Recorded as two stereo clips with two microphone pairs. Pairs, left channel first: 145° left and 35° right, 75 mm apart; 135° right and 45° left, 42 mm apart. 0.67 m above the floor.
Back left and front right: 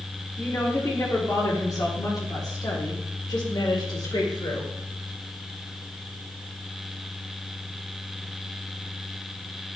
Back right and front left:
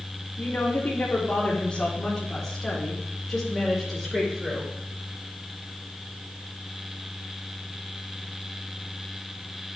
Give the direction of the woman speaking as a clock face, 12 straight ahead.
5 o'clock.